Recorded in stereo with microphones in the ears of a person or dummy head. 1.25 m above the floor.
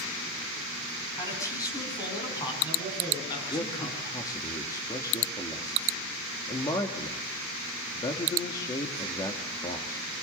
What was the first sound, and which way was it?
A man speaking, 20° left (ahead or behind).